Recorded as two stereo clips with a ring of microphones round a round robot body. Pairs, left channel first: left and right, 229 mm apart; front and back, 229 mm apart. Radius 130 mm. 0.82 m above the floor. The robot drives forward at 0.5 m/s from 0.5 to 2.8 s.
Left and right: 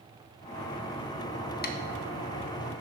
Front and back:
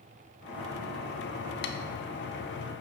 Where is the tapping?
40° left, 0.5 m; by 1.8 s 45° left, 0.5 m.